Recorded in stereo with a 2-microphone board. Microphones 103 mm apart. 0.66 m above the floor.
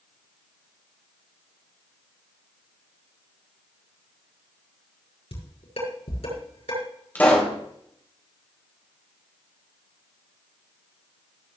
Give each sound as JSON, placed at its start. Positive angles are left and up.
{"t": 5.3, "sound": "dishes clattering", "side_deg": 70, "distance_m": 7.0}
{"t": 7.2, "sound": "a pop", "side_deg": 15, "distance_m": 3.5}